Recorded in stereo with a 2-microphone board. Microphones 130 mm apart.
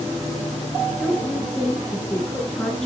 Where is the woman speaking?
5° left (ahead or behind), 2.5 m.